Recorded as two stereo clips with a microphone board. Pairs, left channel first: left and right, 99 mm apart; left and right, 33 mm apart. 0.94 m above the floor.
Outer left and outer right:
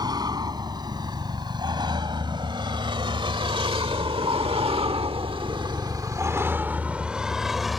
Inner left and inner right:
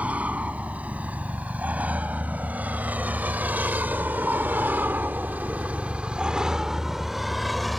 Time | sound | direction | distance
0.0 | a vehicle | 45° right (ahead or behind) | ?